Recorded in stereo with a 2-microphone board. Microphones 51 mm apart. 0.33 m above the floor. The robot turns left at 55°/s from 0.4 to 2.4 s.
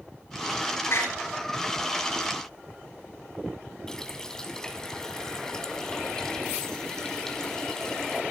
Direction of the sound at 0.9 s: 65° left (ahead or behind).